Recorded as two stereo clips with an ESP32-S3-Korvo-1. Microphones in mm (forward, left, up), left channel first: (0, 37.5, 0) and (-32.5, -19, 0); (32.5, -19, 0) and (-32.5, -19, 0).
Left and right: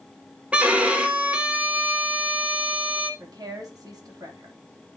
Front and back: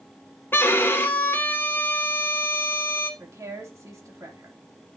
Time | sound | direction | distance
0.5 | a violin | 50° right | 1.1 m
3.2 | a woman speaking | 140° right | 2.5 m